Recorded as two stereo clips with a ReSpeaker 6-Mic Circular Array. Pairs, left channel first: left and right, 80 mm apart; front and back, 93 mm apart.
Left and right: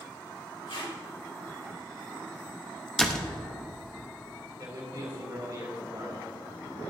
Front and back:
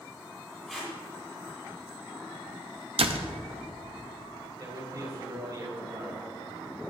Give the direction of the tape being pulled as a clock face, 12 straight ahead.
9 o'clock.